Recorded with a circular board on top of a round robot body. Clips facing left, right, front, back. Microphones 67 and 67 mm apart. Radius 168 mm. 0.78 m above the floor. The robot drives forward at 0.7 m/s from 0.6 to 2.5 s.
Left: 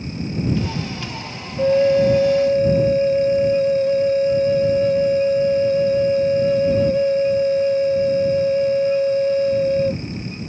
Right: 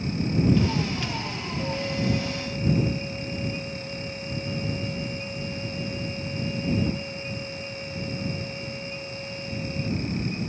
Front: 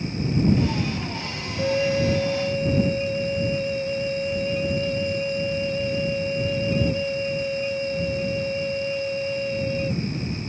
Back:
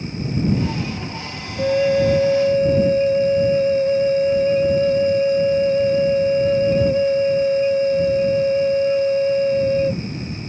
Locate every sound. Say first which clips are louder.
1.6 s a flute: left 16 dB, back 6 dB; 105° left; by 10.0 s 125° left